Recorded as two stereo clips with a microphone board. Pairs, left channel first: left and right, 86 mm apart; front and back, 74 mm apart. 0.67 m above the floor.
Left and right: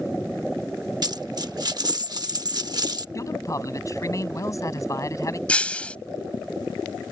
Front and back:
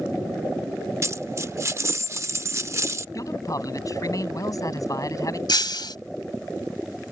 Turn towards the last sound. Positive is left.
turn(degrees=15)